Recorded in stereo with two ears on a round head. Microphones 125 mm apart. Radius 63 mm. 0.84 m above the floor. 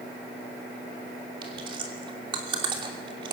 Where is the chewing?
40° right (ahead or behind), 3 m.